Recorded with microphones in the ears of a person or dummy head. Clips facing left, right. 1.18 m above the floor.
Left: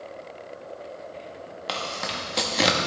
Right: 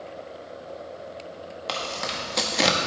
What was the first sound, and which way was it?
Tearing paper, 5° left (ahead or behind).